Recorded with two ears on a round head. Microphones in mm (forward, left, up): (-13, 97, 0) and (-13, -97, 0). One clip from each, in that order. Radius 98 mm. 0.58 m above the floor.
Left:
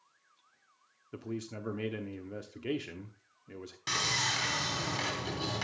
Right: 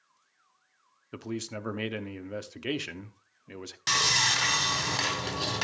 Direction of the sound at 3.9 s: 30° right (ahead or behind).